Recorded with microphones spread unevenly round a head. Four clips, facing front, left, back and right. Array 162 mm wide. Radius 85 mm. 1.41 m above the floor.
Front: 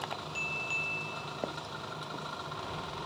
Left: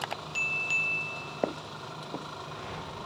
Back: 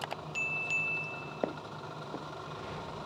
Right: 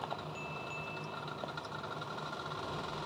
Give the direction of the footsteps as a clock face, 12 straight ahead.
8 o'clock.